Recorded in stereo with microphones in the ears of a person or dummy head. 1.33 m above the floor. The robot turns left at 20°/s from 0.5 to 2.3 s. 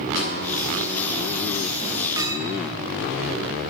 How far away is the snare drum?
About 9.5 m.